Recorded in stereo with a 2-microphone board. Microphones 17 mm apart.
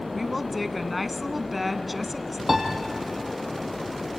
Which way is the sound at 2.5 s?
15° right (ahead or behind).